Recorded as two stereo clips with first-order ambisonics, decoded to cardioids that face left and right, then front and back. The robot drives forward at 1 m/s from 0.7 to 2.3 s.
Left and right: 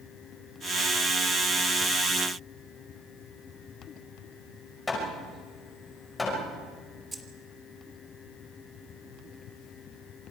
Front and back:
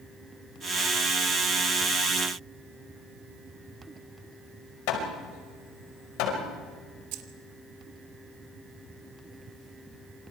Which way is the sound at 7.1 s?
170° right.